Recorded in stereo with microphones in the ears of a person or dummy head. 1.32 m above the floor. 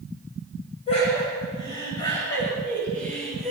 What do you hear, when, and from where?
0.9 s laughter: 30° left (ahead or behind), 7.5 m; by 3.5 s 5° left (ahead or behind), 7.5 m